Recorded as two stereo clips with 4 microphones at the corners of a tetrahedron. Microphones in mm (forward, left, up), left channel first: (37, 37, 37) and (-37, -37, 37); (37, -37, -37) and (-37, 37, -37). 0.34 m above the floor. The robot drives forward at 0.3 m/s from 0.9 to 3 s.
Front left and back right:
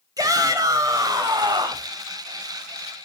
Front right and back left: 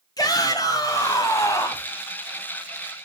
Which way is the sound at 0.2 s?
90° right.